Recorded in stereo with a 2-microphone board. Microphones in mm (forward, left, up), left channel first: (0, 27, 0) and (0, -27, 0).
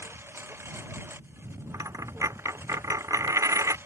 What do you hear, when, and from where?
0.0 s a lawn mower: 50° right (ahead or behind)
1.7 s a dropped coin: 70° right (ahead or behind)